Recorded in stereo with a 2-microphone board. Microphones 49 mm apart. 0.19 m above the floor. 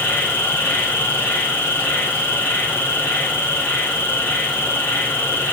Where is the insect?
45° left (ahead or behind), 4.5 m.